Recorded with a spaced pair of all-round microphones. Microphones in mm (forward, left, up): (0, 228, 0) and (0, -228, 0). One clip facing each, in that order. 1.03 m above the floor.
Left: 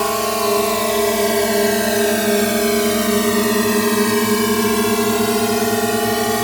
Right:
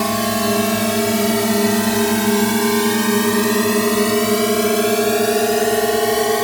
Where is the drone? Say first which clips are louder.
Even; 40° right (ahead or behind); by 6.4 s 25° left (ahead or behind).